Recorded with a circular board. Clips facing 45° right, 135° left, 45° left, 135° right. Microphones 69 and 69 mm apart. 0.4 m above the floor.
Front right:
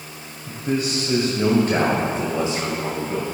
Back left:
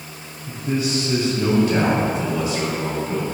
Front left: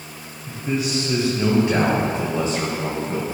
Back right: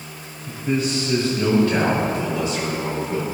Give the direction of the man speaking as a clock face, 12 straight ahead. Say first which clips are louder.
Even, back right 2 dB; 2 o'clock.